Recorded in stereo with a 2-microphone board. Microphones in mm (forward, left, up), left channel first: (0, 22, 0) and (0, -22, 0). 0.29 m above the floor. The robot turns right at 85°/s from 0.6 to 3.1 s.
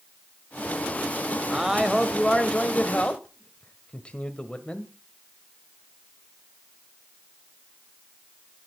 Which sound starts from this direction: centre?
A man speaking, at 1.5 s.